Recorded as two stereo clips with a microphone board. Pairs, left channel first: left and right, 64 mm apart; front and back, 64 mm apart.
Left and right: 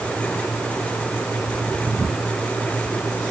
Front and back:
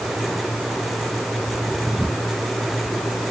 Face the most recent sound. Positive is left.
No sound to turn to.